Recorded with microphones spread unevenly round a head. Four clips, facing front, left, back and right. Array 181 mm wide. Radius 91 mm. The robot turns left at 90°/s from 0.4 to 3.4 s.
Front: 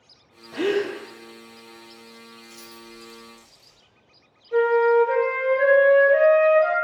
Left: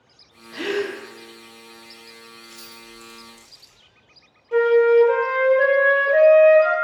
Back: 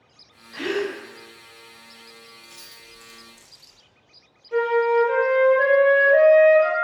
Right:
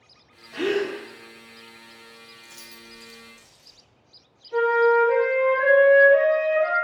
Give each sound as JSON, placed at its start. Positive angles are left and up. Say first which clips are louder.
{"t": 0.5, "sound": "a gasp", "louder": "right 1 dB, front 3 dB", "azimuth_deg": 5, "distance_m": 0.5}
{"t": 2.4, "sound": "keys jangling", "louder": "left 3 dB, front 5 dB", "azimuth_deg": -100, "distance_m": 0.5}
{"t": 4.5, "sound": "a flute", "louder": "left 4 dB, front 2 dB", "azimuth_deg": 115, "distance_m": 1.1}